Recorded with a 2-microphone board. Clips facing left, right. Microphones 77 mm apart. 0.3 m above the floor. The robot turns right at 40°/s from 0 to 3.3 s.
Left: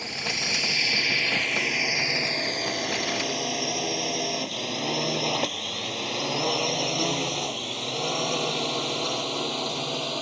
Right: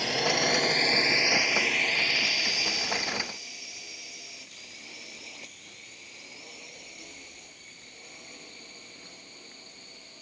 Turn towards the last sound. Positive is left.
turn(degrees=80)